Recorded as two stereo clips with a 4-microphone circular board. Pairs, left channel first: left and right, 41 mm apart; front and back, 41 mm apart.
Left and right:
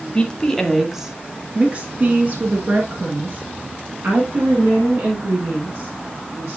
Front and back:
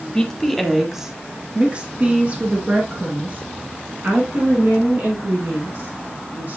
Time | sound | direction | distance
0.1 | a woman speaking | 55° left | 1.1 m